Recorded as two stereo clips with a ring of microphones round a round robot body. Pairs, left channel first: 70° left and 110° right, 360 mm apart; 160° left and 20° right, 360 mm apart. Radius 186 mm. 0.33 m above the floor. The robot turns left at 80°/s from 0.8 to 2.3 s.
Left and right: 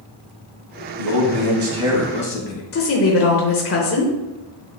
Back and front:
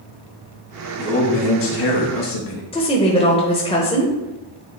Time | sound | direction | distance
1.0 | a man speaking | 125° right | 2 m
2.7 | a woman speaking | 90° left | 1.1 m